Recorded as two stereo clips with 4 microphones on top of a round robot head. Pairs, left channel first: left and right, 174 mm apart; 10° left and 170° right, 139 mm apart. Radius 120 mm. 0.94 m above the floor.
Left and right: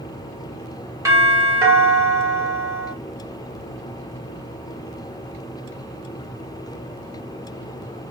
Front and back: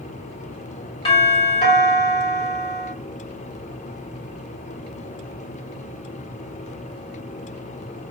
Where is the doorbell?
25° right, 1.7 m.